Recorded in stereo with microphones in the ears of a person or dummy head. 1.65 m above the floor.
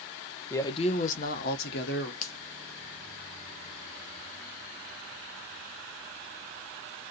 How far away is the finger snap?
About 0.9 m.